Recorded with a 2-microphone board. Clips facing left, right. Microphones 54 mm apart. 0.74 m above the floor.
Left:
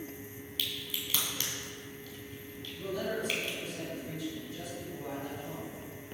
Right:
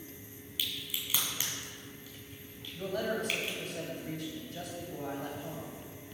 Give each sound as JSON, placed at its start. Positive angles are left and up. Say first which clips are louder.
{"t": 0.6, "sound": "a crack", "louder": "even", "side_deg": -15, "distance_m": 2.5}
{"t": 2.7, "sound": "a man speaking", "louder": "right 1 dB", "side_deg": -60, "distance_m": 3.5}